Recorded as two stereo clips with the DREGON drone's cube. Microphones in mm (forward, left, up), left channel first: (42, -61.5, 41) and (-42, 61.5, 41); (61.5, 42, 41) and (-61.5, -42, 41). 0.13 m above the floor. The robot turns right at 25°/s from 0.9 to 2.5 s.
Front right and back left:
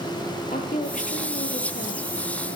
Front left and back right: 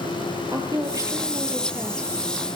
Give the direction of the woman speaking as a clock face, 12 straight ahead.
3 o'clock.